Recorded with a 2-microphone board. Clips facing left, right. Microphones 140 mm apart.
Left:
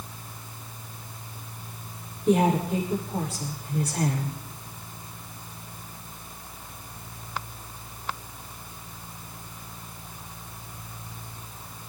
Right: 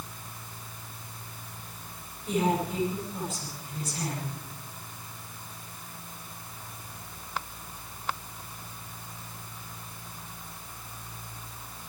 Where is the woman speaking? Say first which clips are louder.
Left 5 dB; 70° left (ahead or behind), 9 m.